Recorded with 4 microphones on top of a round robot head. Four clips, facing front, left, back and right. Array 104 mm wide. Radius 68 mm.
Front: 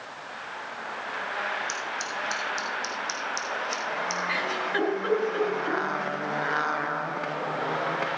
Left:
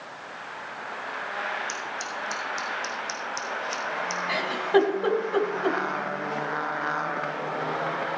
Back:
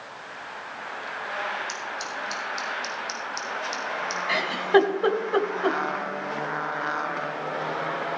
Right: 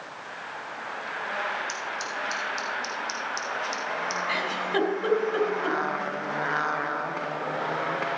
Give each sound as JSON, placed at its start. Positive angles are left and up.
{"t": 1.7, "sound": "scissors", "azimuth_deg": 55, "distance_m": 4.0}
{"t": 4.3, "sound": "a giggle", "azimuth_deg": 160, "distance_m": 2.0}